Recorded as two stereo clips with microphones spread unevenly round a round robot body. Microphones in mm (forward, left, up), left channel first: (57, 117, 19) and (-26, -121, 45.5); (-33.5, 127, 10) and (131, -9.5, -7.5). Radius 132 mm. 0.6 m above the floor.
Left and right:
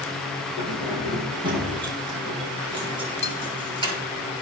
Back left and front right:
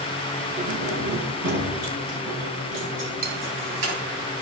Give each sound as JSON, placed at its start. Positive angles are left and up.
{"t": 0.6, "sound": "keys jangling", "azimuth_deg": -35, "distance_m": 5.0}
{"t": 3.2, "sound": "cutlery clinking", "azimuth_deg": 5, "distance_m": 1.9}